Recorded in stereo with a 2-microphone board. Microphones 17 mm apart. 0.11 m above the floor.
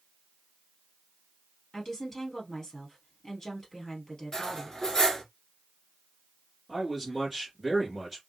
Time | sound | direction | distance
1.7 | a woman speaking | 25° left (ahead or behind) | 2 m
4.3 | cutlery clinking | 30° left (ahead or behind) | 1.0 m
6.7 | a man speaking | 15° right (ahead or behind) | 2.0 m